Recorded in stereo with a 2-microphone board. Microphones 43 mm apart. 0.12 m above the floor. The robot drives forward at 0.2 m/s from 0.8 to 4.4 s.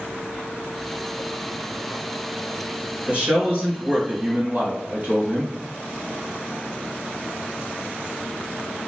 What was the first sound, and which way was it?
A man speaking, 35° right (ahead or behind).